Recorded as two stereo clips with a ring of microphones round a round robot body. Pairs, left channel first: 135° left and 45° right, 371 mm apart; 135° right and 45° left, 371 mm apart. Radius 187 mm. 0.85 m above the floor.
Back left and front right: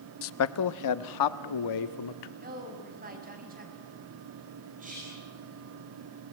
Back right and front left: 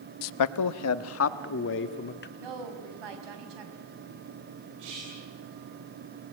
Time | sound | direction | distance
0.2 | a man speaking | 170° right | 0.8 m
2.4 | a woman speaking | 25° left | 5 m
4.8 | whispering | 25° left | 5 m